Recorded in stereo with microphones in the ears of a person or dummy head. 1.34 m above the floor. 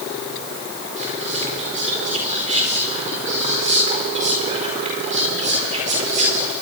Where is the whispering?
35° right (ahead or behind), 4.5 m.